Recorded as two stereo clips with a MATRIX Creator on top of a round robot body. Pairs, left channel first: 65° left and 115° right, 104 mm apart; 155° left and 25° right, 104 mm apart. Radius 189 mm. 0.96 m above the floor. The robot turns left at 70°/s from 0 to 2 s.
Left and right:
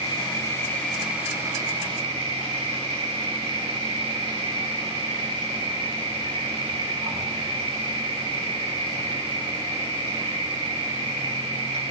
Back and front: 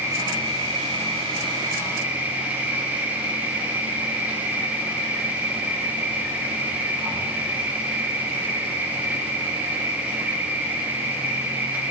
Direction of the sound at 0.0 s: 45° left.